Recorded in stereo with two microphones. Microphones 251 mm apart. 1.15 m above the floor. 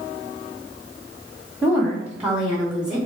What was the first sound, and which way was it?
A woman speaking, 10° right (ahead or behind).